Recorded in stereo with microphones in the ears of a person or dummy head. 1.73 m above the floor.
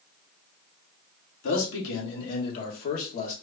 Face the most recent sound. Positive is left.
turn(degrees=40)  # may be behind; listen again after turning